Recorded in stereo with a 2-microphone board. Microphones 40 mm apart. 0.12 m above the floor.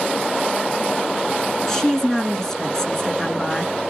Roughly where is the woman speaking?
Centre.